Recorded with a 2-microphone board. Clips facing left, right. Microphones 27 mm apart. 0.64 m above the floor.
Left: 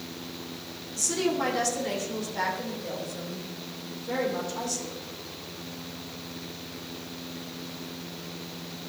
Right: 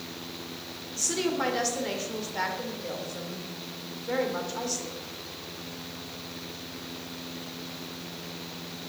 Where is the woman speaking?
15° right (ahead or behind), 2.5 m.